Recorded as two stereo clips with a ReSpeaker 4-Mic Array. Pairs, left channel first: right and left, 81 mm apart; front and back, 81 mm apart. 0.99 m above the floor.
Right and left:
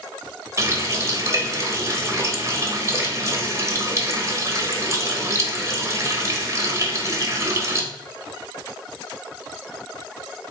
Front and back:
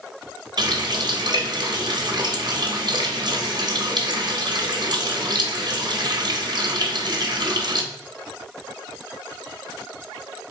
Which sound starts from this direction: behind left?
A running tap, at 0.6 s.